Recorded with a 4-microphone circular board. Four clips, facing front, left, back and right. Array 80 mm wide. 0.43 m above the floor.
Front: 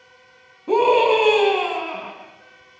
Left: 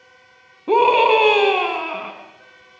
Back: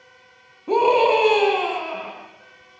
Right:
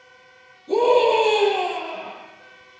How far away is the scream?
About 5 m.